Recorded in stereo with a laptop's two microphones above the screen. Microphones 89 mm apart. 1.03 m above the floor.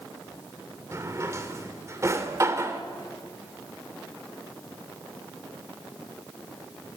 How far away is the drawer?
About 2 m.